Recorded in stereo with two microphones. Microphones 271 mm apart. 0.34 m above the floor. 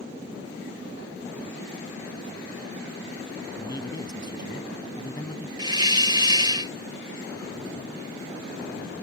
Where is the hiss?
15° right (ahead or behind).